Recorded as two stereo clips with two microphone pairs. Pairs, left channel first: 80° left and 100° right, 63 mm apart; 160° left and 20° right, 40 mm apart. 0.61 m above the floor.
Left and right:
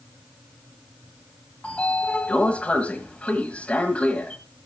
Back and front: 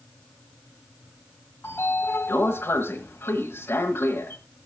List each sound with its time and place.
1.6 s a sliding door: 150° left, 1.4 m